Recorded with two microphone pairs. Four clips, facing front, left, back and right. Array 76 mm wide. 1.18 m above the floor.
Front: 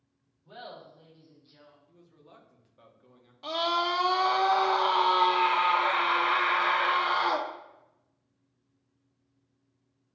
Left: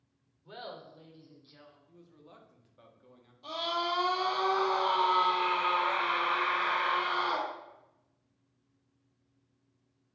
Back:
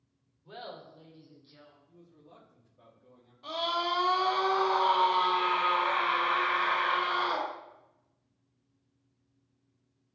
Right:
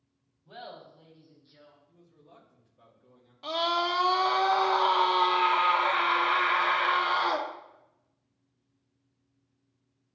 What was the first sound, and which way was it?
Laughter, 100° left.